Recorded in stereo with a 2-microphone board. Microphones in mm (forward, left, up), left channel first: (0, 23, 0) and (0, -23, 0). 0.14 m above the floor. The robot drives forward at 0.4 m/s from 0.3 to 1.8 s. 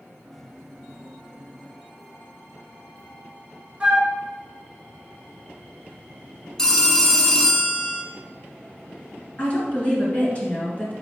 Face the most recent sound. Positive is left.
turn(degrees=40)  # may be behind; listen again after turning